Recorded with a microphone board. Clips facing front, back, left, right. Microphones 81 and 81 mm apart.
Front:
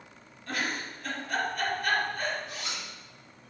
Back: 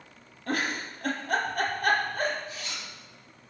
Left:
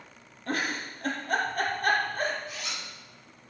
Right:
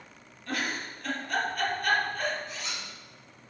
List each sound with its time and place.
0.5 s a giggle: 140° left, 3.5 m
2.5 s a zipper: 5° left, 7 m